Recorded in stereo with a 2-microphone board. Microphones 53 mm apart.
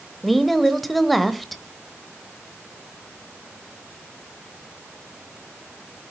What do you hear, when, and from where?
0.2 s a woman speaking: centre (ahead or behind), 1.0 m